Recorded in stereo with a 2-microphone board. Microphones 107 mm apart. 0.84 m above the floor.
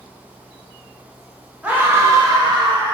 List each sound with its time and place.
1.6 s a scream: 10° right (ahead or behind), 0.8 m; by 3.0 s 50° right (ahead or behind), 1.2 m